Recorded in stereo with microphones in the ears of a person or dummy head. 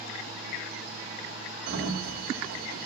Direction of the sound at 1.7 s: 70° right (ahead or behind).